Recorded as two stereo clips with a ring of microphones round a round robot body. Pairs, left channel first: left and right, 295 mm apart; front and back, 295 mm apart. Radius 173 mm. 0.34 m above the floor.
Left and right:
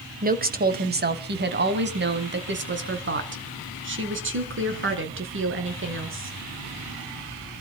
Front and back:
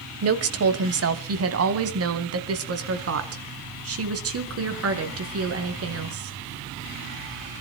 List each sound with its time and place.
0.2 s a woman speaking: 150° right, 2.5 m; by 6.4 s 140° right, 6.5 m